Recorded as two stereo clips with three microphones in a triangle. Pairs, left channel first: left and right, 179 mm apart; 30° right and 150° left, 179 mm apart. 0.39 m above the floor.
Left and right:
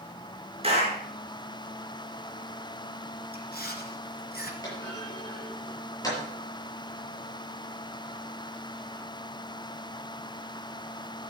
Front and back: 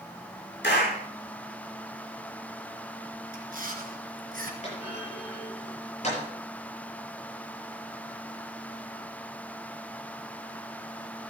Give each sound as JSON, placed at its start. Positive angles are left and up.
{"t": 0.6, "sound": "a clap", "azimuth_deg": -35, "distance_m": 5.0}
{"t": 3.3, "sound": "chewing", "azimuth_deg": 115, "distance_m": 2.5}
{"t": 4.6, "sound": "a clunk", "azimuth_deg": 20, "distance_m": 7.0}